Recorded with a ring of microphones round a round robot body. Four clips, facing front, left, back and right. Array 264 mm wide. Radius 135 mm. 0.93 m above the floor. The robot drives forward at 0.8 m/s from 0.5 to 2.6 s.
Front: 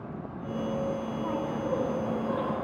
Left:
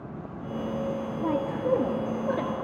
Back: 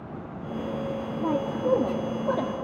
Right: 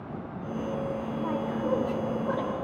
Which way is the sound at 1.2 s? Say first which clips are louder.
Left 3 dB, back 7 dB; 140° left.